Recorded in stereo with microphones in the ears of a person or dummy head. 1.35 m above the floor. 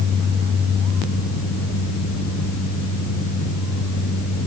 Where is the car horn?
No car horn in this recording.